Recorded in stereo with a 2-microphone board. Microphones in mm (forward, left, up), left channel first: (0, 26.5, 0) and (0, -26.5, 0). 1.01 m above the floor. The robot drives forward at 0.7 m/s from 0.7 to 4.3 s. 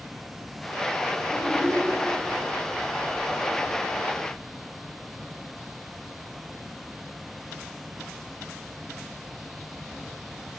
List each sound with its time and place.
1.3 s a child speaking: centre (ahead or behind), 3.5 m